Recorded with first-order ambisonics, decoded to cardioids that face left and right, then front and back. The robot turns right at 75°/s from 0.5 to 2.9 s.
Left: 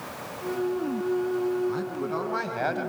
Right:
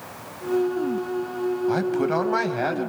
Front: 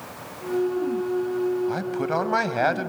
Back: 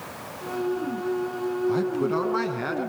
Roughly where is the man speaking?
Right.